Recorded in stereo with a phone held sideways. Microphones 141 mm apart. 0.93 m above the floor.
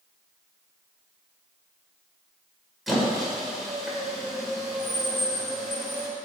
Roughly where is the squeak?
Centre.